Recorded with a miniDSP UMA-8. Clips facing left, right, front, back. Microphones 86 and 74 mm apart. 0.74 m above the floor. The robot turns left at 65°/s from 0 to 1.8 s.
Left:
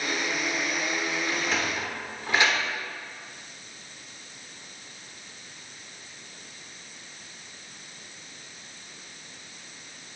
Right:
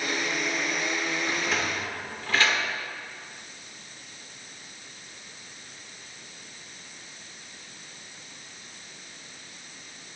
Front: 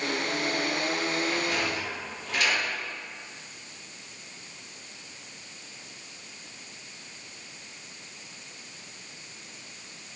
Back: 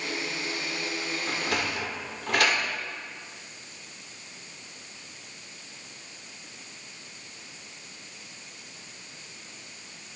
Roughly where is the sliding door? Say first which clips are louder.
Even, front 1 dB; behind.